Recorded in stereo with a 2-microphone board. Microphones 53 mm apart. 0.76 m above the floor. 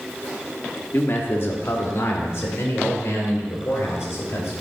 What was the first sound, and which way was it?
A man speaking, 45° left (ahead or behind).